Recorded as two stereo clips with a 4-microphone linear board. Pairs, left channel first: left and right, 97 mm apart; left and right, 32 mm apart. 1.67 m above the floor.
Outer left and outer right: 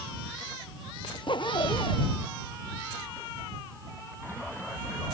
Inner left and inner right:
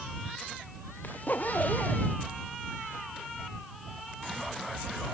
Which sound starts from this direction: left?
A zipper, at 1.0 s.